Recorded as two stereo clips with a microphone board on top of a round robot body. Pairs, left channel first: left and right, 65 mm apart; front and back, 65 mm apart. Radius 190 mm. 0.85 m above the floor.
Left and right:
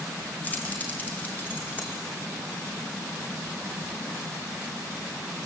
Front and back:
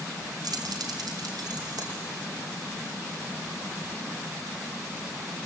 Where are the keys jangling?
160° left, 1.8 m; by 2.0 s 155° left, 3 m.